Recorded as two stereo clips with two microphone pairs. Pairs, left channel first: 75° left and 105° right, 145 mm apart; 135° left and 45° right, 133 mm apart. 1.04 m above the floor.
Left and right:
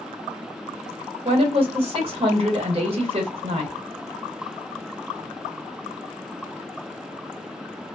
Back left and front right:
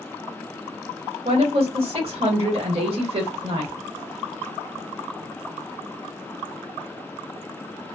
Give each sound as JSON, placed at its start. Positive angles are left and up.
{"t": 1.2, "sound": "a woman speaking", "azimuth_deg": -70, "distance_m": 1.2}